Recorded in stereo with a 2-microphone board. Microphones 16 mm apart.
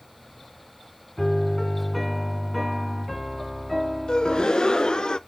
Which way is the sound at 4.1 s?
55° left (ahead or behind).